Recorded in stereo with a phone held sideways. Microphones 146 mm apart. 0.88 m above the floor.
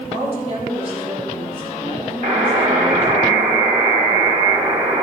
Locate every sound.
0.1 s a woman speaking: 45° right (ahead or behind), 4 m
2.2 s a buzzer: 65° right (ahead or behind), 2.5 m